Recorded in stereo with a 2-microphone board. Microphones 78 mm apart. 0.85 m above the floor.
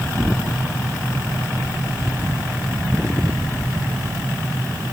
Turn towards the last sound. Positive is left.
No sound to turn to.